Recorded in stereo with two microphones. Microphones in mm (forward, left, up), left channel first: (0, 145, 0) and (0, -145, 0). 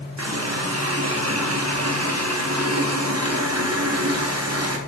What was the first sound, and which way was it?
A running tap, 60° right (ahead or behind).